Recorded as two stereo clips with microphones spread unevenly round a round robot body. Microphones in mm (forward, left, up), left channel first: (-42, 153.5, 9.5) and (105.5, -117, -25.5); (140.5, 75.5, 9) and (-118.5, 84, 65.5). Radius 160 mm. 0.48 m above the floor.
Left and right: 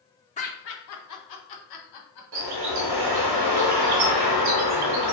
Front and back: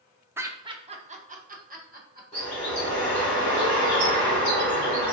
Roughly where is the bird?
Right.